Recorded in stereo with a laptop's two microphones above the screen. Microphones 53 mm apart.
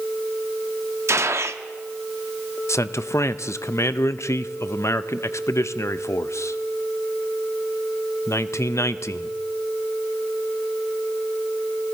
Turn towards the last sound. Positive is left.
turn(degrees=65)  # may be behind; listen again after turning